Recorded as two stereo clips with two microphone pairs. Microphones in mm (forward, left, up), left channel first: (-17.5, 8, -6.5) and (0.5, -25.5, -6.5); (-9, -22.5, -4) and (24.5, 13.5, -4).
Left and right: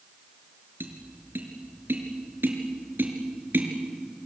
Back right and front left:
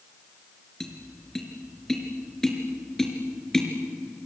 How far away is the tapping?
About 4 m.